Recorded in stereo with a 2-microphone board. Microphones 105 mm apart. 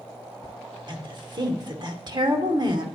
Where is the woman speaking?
45° right (ahead or behind), 1.2 m.